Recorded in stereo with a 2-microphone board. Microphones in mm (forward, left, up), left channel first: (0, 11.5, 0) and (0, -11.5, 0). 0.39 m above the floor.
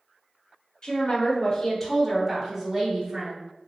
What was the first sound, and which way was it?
A woman speaking, 45° left (ahead or behind).